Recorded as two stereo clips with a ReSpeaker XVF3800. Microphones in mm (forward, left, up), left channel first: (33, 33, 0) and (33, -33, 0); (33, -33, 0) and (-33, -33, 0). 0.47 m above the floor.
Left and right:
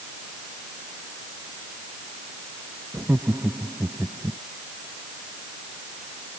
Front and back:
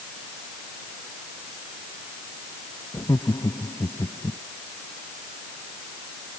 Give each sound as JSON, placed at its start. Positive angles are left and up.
{"t": 2.9, "sound": "laughter", "azimuth_deg": -30}